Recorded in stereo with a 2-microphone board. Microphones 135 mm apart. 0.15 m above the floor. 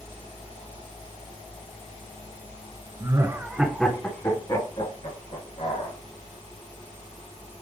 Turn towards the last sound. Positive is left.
turn(degrees=60)  # may be behind; listen again after turning